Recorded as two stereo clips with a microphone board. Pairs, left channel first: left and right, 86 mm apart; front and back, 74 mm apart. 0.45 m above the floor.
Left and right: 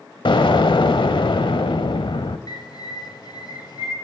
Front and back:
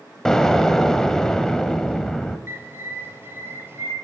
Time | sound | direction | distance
0.2 | an explosion | 80° left | 1.0 m
2.5 | a bird | 120° left | 1.7 m